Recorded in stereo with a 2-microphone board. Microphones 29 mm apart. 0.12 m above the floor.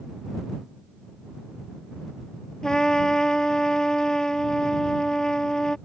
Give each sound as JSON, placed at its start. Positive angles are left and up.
{"t": 2.6, "sound": "a trumpet", "side_deg": 20}